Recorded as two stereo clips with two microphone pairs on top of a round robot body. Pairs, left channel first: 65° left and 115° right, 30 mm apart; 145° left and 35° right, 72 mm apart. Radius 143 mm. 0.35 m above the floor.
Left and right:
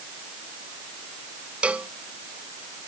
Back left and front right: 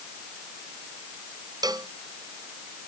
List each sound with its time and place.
1.6 s a cowbell: 70° right